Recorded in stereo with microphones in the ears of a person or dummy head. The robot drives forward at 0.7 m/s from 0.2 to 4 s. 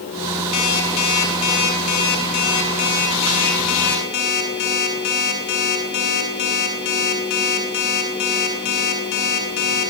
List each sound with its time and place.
0.5 s an alarm clock: 75° left (ahead or behind), 6 m; by 9.9 s 55° left (ahead or behind), 7 m